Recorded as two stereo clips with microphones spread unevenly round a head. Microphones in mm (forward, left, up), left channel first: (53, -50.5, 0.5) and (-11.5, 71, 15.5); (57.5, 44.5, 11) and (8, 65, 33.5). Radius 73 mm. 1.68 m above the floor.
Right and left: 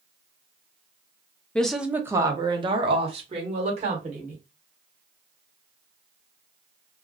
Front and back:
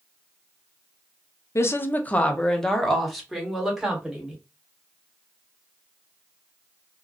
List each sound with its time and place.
1.6 s a woman speaking: 25° left, 0.5 m; by 4.4 s 85° left, 1.7 m